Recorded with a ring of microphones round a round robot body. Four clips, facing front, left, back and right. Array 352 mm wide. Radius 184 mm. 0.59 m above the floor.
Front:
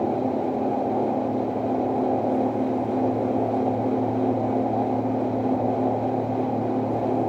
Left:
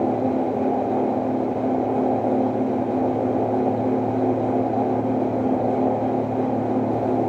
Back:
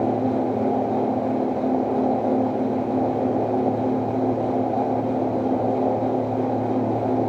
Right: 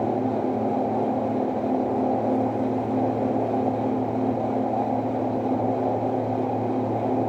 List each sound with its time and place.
Only background noise.